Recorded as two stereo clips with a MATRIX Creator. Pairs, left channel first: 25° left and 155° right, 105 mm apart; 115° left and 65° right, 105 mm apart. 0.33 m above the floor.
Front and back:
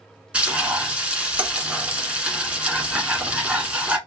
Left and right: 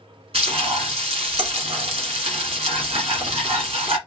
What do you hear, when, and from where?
0.3 s frying: 80° right, 1.4 m